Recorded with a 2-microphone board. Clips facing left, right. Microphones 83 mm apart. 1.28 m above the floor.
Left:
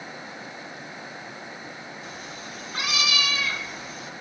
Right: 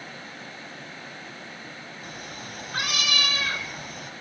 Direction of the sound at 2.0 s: 65° right (ahead or behind).